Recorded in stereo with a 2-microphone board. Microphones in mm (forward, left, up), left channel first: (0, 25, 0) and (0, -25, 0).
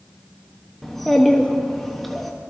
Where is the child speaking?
5° left (ahead or behind), 0.8 m.